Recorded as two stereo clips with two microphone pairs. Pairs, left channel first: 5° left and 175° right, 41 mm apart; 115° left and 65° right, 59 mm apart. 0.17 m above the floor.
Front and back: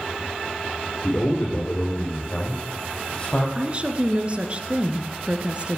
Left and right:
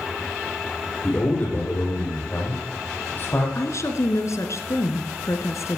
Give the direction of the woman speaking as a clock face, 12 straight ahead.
8 o'clock.